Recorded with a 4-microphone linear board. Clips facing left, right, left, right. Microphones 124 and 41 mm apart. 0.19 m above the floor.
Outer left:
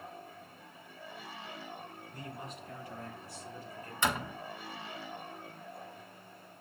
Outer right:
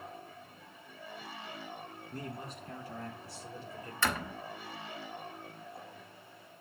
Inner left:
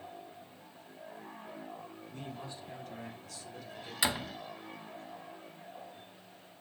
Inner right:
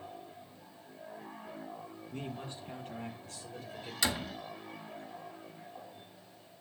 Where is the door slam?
20° left (ahead or behind), 1.0 m.